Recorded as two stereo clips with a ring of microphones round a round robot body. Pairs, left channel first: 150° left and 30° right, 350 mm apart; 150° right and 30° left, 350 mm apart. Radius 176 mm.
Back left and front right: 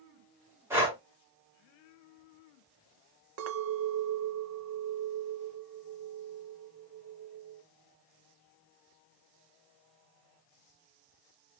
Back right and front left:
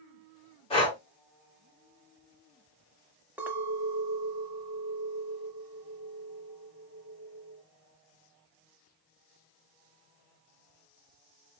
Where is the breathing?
100° right, 1.3 m.